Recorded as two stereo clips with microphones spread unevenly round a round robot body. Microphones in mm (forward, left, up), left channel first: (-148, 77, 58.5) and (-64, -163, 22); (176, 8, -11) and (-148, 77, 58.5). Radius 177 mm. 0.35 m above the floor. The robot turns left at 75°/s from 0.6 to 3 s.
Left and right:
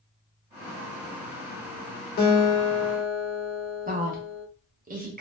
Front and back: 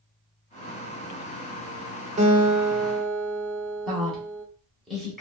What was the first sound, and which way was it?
A guitar, 100° left.